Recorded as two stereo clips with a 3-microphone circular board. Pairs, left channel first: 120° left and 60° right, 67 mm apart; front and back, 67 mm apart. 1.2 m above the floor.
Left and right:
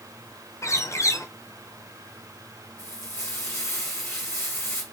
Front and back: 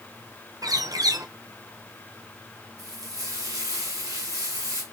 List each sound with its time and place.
0.6 s a bird: 160° left, 0.6 m
2.8 s frying: 165° left, 2 m